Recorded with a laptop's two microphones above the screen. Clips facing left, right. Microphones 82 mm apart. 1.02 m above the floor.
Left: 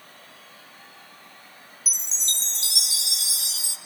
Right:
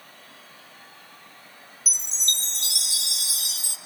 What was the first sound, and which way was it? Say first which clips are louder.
A chime: right 3 dB; 55° right (ahead or behind).